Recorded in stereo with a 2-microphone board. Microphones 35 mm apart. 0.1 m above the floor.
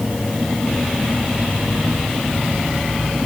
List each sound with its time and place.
Only background noise.